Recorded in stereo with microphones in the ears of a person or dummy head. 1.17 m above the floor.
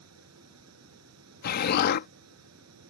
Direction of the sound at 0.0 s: 85° right.